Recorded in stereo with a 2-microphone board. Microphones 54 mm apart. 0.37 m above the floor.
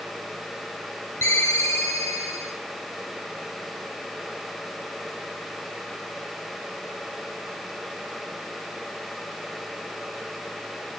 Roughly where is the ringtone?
Left.